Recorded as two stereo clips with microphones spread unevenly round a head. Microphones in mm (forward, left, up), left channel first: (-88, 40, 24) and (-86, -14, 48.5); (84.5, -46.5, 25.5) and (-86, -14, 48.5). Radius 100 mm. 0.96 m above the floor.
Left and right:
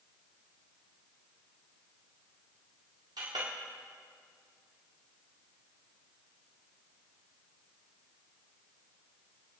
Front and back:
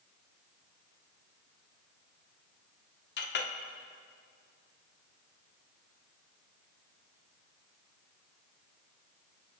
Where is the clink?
40° right, 1.5 m.